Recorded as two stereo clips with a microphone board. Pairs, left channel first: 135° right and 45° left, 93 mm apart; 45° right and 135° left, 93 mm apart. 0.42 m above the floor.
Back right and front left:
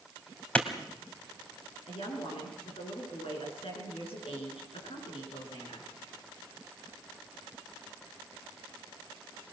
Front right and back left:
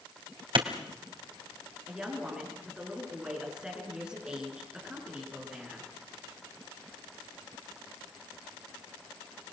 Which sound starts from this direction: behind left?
A clap, at 0.6 s.